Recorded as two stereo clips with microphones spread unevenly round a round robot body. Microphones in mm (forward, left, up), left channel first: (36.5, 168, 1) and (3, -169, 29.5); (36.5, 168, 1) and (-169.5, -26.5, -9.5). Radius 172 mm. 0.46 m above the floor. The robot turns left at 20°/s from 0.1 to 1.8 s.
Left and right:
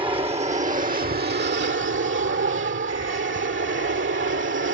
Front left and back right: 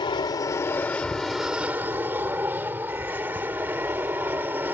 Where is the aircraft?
25° right; by 4.7 s 55° right.